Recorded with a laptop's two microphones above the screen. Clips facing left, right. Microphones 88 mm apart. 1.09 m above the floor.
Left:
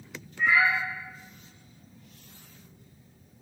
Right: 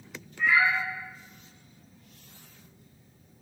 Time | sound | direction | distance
0.4 | a cat meowing | 35° left (ahead or behind) | 1.1 m